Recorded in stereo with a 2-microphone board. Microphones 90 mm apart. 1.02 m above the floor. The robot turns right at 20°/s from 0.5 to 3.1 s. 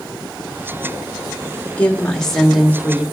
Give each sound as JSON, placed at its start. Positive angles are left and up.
{"t": 1.6, "sound": "a woman speaking", "side_deg": 15, "distance_m": 1.6}